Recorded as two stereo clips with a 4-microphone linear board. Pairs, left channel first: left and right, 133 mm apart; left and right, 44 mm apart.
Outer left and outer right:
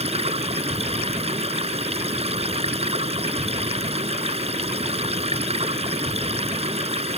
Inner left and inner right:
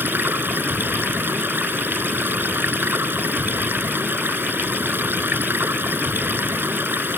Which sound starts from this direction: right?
Running water, at 0.0 s.